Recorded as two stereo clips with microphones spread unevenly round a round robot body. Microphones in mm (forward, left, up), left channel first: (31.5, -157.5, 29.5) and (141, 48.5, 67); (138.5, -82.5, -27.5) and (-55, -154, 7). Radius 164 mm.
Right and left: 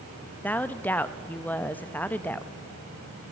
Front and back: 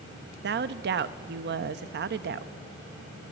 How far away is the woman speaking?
About 0.6 m.